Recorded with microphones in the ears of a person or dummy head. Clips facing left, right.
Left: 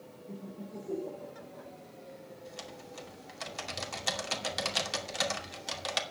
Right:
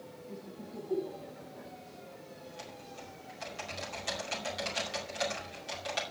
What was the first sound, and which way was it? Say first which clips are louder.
Laughter: left 3 dB; 90° left.